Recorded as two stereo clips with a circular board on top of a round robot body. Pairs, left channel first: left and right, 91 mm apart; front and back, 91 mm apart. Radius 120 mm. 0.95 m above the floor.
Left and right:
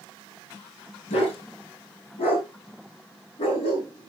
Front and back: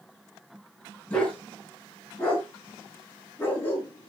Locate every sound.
1.1 s a dog barking: 75° left, 4.5 m; by 4.1 s 65° left, 6.5 m